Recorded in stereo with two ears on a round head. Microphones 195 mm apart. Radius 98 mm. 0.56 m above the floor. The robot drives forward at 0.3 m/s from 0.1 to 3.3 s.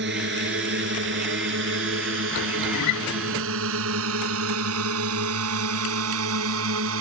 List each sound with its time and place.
0.0 s a drone: 55° right (ahead or behind); by 7.0 s 65° right (ahead or behind)
2.7 s a guitar: 85° left